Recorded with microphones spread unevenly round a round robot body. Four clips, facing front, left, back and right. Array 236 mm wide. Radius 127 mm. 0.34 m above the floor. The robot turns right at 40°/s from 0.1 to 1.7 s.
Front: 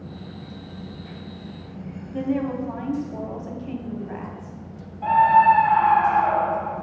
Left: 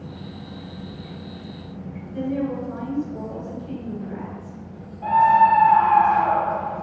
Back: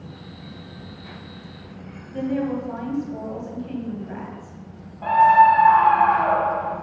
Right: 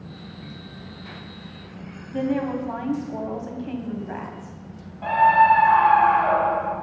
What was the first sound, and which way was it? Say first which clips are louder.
A woman speaking: right 1 dB, back 1 dB; 75° right.